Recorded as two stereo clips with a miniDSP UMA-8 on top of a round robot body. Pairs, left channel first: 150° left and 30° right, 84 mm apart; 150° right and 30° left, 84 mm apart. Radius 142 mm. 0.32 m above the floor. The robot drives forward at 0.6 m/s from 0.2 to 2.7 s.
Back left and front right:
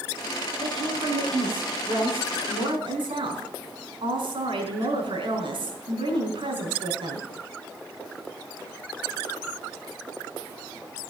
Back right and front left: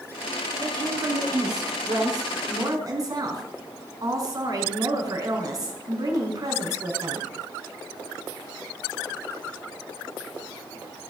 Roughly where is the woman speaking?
Ahead.